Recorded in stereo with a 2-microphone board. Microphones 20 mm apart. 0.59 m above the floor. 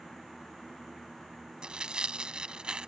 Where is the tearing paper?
55° right (ahead or behind).